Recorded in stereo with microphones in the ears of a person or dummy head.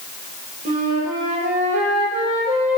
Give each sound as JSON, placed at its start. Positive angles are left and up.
{"t": 0.7, "sound": "a flute", "side_deg": -40, "distance_m": 0.8}